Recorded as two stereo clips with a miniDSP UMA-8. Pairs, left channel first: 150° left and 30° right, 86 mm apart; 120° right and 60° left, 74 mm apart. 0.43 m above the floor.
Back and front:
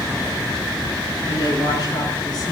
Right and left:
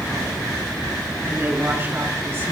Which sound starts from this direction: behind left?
A woman speaking, at 1.3 s.